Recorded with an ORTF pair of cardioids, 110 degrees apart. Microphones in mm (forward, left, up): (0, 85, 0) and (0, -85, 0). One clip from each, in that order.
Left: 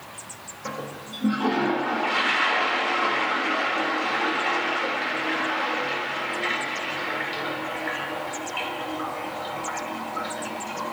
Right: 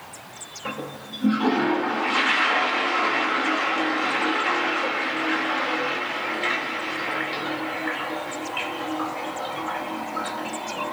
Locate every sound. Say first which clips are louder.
0.7 s a toilet flushing: right 1 dB; 10° right, 2.5 m